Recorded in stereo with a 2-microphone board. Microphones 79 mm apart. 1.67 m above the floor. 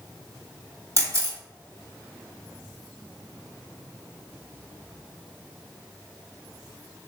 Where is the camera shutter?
40° right (ahead or behind), 1.6 m.